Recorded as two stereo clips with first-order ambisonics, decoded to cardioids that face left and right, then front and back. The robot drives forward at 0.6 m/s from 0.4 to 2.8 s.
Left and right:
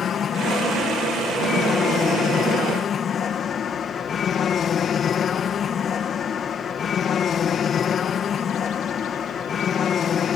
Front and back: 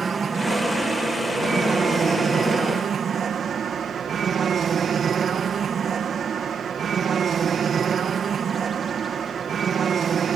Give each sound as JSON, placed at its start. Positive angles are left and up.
{"t": 0.0, "sound": "an aircraft", "azimuth_deg": 125}